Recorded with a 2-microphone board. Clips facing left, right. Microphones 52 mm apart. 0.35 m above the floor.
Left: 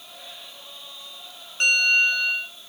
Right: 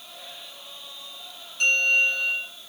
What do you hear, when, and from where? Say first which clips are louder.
1.6 s a bell: left 2 dB; 40° left (ahead or behind), 2.5 m